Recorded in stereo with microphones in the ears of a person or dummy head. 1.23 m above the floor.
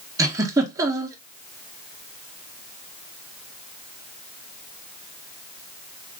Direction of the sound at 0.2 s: 10° right (ahead or behind).